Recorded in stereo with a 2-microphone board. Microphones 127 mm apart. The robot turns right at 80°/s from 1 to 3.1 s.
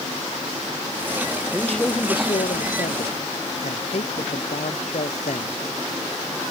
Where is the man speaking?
10° right; by 5.6 s 115° left.